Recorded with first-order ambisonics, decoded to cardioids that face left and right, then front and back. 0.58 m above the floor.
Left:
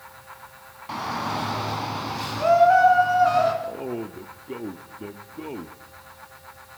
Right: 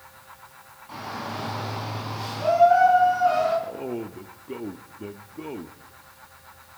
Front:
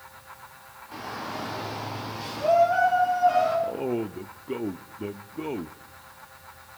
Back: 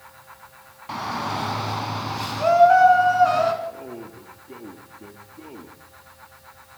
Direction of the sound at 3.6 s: Straight ahead.